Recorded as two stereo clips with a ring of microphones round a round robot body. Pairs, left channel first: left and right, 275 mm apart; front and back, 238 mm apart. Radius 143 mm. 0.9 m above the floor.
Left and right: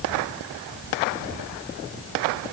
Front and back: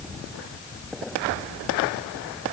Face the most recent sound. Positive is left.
No sound to turn to.